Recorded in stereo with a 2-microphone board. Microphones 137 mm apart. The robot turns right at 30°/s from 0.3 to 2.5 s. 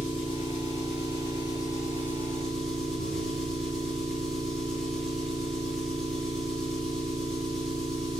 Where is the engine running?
110° left, 5 m; by 8.2 s straight behind, 5 m.